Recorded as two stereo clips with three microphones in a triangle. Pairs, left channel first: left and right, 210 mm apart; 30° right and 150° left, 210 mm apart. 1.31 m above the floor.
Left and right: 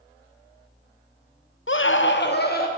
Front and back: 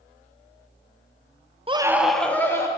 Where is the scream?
95° left, 0.6 m; by 2.7 s 45° left, 1.6 m.